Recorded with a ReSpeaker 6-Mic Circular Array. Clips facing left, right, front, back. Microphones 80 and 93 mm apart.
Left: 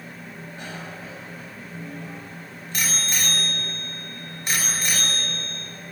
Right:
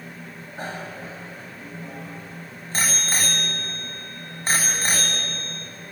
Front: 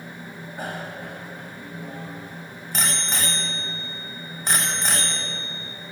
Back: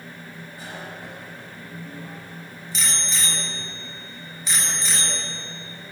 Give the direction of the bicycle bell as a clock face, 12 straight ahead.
1 o'clock.